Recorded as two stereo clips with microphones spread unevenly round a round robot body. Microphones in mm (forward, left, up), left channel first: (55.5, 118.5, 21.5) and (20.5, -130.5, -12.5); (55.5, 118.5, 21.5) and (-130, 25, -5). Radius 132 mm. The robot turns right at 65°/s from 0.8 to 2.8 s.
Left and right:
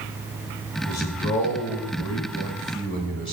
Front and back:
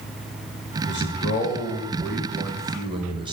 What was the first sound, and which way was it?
A man speaking, 30° left.